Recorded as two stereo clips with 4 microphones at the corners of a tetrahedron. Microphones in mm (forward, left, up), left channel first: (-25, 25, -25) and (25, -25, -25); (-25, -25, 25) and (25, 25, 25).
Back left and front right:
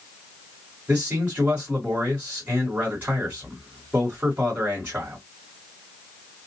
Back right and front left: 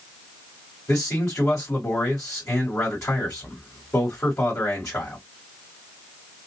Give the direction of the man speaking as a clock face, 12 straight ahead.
3 o'clock.